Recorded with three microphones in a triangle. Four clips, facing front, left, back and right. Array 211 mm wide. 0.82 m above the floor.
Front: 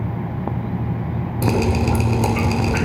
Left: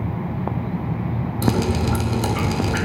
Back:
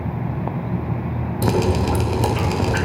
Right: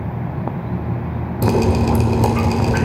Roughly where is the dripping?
Right.